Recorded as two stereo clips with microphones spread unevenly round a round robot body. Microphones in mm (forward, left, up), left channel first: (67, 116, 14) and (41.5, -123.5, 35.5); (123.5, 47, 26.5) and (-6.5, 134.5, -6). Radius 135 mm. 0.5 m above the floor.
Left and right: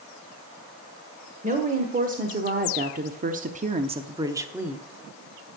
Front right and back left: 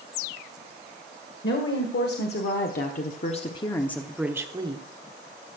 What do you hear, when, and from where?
1.4 s a woman speaking: 40° right, 1.8 m; by 4.8 s 175° left, 1.0 m